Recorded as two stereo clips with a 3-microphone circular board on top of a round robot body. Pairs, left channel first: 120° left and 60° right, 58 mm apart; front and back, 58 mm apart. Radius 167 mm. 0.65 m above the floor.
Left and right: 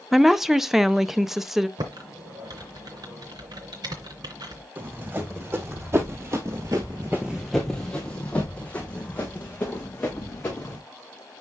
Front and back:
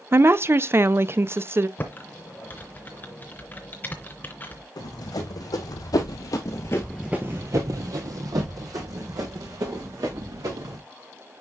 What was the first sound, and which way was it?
A woman speaking, 145° right.